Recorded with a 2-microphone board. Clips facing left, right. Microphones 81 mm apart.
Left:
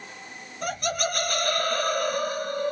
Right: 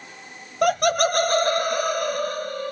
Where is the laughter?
65° right (ahead or behind), 0.6 m; by 2.7 s 15° left (ahead or behind), 1.0 m.